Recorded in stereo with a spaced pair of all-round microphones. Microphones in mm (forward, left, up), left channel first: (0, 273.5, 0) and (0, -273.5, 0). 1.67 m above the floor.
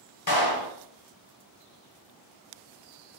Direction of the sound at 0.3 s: 40° left (ahead or behind).